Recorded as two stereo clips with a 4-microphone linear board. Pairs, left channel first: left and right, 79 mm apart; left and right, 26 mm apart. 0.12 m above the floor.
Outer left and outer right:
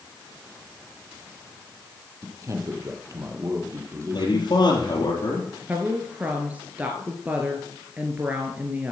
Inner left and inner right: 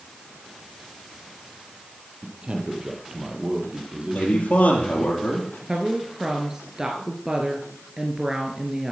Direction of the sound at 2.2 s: 35° right (ahead or behind).